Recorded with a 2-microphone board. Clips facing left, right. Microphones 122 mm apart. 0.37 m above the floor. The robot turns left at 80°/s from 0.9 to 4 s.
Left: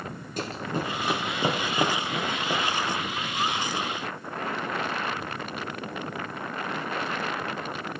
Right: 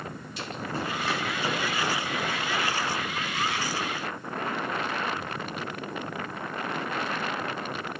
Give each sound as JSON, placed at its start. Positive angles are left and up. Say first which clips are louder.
{"t": 0.4, "sound": "running footsteps", "louder": "left 3 dB", "side_deg": 45, "distance_m": 1.0}